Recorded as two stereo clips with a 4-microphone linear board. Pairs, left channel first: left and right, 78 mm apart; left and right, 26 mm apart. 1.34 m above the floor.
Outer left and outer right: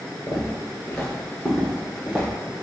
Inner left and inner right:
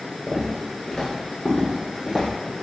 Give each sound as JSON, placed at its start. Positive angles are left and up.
{"t": 0.3, "sound": "footsteps", "side_deg": 30, "distance_m": 1.6}